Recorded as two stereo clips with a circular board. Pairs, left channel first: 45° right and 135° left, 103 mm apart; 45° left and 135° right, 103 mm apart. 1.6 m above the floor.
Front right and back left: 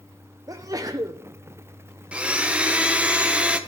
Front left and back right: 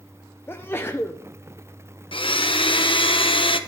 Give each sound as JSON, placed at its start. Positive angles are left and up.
{"t": 0.5, "sound": "a sneeze", "azimuth_deg": 100, "distance_m": 0.5}
{"t": 2.1, "sound": "a blender", "azimuth_deg": 60, "distance_m": 0.8}